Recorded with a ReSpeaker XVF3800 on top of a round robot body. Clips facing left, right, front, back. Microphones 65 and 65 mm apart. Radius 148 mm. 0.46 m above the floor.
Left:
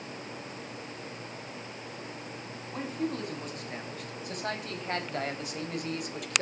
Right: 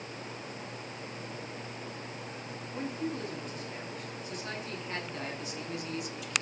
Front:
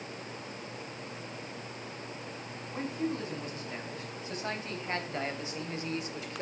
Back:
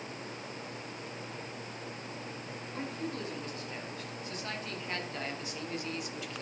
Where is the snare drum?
I don't hear a snare drum.